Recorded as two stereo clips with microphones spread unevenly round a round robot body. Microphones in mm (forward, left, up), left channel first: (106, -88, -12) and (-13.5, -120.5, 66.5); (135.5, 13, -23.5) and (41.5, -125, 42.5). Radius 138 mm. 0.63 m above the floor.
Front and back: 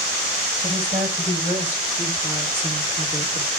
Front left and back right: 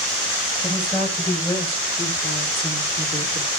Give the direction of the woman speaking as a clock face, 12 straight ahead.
8 o'clock.